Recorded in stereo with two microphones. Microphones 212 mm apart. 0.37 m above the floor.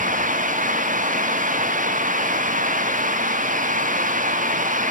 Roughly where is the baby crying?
No baby crying in this recording.